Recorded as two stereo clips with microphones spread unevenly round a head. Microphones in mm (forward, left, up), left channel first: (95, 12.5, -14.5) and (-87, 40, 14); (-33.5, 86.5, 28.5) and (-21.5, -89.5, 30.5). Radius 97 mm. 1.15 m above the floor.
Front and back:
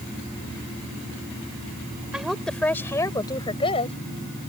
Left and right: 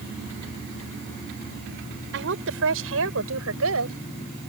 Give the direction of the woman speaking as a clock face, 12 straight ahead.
3 o'clock.